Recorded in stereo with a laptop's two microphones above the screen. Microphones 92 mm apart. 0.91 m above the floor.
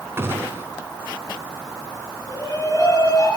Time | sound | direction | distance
0.2 | a gunshot | 25° right (ahead or behind) | 5 m
2.3 | a shout | 45° left (ahead or behind) | 10 m